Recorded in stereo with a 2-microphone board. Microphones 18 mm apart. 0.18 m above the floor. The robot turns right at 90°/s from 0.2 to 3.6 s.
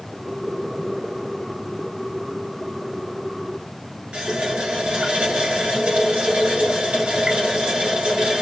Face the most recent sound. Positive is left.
turn(degrees=-60)  # may be behind; listen again after turning